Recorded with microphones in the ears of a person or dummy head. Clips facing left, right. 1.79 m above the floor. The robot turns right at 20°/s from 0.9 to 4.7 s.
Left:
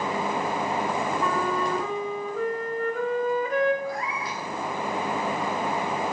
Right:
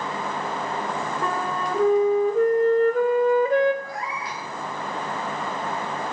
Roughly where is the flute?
Right.